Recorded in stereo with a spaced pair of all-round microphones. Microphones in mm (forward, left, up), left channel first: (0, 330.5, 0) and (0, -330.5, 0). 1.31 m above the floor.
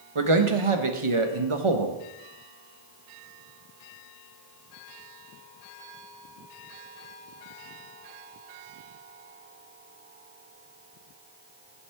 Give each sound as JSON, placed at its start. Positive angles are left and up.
{"t": 0.1, "sound": "a man speaking", "side_deg": -50, "distance_m": 1.2}